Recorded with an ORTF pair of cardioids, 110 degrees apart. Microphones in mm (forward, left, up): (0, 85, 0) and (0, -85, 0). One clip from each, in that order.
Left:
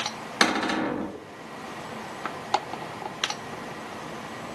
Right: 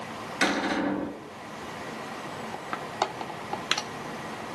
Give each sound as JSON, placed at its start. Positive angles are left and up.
{"t": 0.4, "sound": "a cupboard door", "azimuth_deg": 65, "distance_m": 1.1}